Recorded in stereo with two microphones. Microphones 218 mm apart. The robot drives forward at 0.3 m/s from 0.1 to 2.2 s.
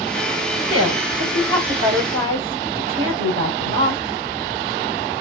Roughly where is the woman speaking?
Right.